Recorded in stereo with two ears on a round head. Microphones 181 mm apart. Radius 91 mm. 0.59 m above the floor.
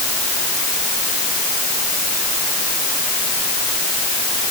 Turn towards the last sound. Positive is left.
No sound to turn to.